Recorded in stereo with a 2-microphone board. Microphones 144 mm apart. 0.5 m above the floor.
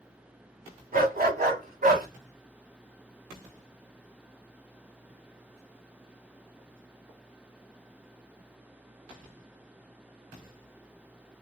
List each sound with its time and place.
0.9 s a dog barking: 75° right (ahead or behind), 1.5 m; by 2.1 s 85° right, 1.3 m